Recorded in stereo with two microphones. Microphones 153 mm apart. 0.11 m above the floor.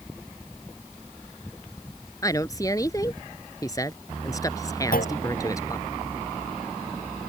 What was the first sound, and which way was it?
A woman speaking, 25° left (ahead or behind).